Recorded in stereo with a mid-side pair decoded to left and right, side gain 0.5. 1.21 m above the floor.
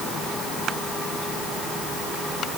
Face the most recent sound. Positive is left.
No sound to turn to.